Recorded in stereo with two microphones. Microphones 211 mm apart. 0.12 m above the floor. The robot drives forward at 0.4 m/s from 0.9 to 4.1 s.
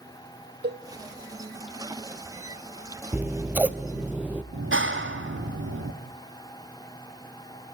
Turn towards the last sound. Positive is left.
turn(degrees=-65)  # may be behind; listen again after turning